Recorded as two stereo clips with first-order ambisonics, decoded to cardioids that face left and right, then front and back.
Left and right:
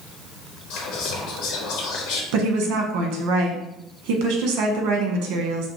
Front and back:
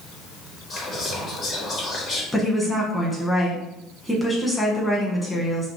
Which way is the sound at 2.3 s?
85° right.